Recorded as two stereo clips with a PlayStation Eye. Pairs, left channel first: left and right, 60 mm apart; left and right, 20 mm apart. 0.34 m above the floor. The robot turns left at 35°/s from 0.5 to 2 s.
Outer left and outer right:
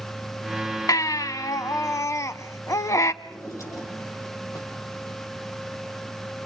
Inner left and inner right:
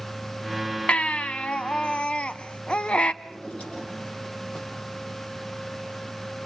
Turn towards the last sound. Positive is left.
turn(degrees=60)  # may be behind; listen again after turning